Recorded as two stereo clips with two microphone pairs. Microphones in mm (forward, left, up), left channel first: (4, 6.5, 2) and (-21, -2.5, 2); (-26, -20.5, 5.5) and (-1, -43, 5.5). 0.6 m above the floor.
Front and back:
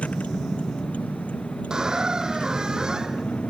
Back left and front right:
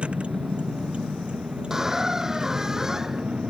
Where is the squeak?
110° right.